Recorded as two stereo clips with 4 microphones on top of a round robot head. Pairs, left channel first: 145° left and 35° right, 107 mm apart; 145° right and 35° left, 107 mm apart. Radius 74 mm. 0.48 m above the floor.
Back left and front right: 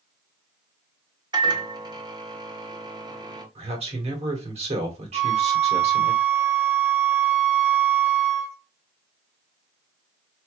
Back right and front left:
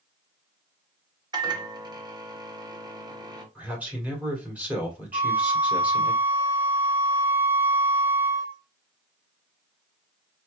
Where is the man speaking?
40° right, 2.5 m.